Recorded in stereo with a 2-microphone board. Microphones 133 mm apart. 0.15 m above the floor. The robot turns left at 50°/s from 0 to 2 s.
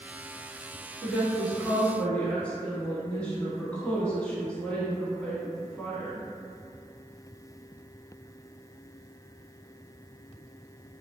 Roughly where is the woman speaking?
Centre.